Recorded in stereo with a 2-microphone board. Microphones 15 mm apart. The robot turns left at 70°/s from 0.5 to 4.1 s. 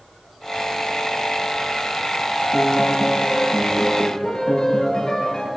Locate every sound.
2.3 s a piano: 175° left, 7 m; by 5.5 s 50° left, 7 m